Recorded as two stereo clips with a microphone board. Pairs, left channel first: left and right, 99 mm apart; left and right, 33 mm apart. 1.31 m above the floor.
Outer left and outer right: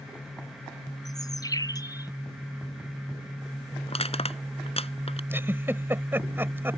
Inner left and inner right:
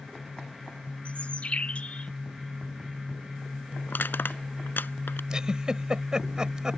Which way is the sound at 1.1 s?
35° left (ahead or behind).